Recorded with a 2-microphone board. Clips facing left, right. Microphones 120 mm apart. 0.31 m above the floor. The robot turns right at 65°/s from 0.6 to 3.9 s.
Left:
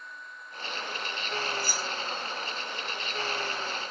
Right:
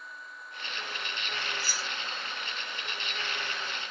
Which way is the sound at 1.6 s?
45° left (ahead or behind).